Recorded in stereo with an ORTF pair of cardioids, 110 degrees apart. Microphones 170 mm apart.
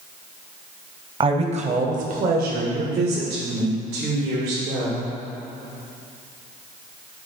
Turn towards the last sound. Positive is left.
turn(degrees=-75)